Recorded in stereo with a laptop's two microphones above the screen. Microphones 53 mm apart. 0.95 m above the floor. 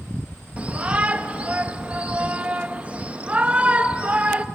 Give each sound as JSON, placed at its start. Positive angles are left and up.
{"t": 0.6, "sound": "a shout", "side_deg": -25, "distance_m": 0.8}